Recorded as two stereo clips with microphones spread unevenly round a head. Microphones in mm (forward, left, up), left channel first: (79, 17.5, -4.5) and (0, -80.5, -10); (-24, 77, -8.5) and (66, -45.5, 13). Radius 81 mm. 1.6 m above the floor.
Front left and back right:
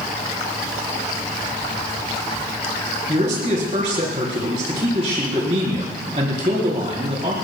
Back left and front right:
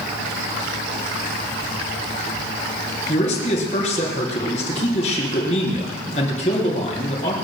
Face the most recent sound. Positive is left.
turn(degrees=180)